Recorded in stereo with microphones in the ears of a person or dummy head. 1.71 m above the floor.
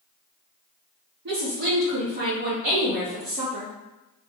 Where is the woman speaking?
60° right (ahead or behind), 1.0 m; by 3.7 s 35° right (ahead or behind), 2.5 m.